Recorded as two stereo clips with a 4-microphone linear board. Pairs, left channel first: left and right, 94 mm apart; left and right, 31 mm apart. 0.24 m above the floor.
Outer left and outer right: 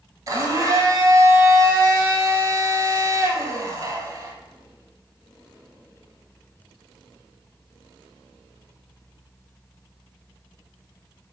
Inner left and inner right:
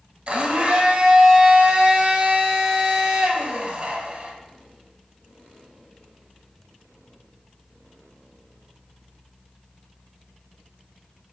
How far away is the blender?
About 0.7 m.